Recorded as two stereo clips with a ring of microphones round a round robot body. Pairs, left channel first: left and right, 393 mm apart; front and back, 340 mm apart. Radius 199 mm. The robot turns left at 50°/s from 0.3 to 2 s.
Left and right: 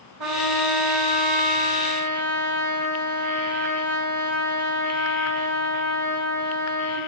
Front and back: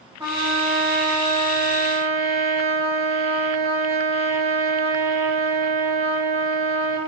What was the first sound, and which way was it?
A trumpet, 100° right.